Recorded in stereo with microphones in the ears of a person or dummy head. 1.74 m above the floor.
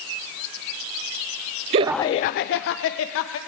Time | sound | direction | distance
1.7 | laughter | 30° right (ahead or behind) | 0.6 m